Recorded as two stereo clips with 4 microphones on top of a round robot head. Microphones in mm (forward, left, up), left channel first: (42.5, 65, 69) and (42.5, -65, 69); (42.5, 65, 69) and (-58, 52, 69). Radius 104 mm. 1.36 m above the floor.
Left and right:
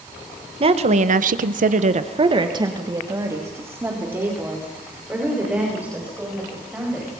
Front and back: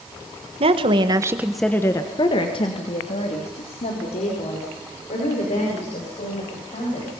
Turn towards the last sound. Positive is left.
turn(degrees=-10)